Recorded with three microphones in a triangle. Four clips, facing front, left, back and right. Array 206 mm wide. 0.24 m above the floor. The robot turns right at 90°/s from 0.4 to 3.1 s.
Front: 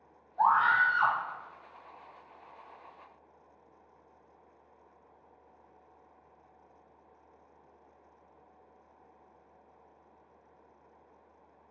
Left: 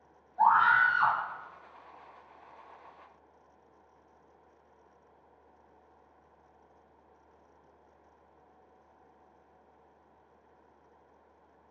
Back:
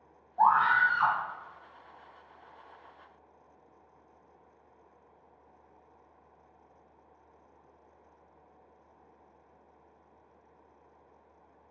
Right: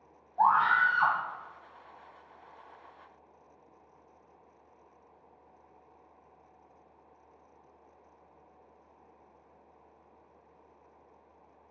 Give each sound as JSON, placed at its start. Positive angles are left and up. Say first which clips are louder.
{"t": 0.4, "sound": "a scream", "louder": "left 1 dB, back 1 dB", "azimuth_deg": -125, "distance_m": 1.3}